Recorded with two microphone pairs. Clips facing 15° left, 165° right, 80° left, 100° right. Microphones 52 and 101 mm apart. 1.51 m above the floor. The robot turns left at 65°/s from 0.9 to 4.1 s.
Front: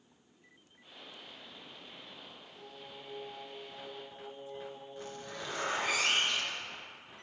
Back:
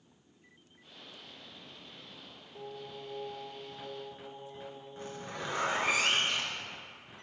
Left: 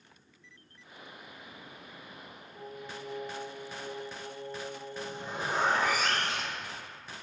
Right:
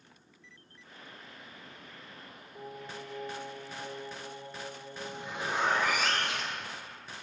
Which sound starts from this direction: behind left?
A zipper, at 5.0 s.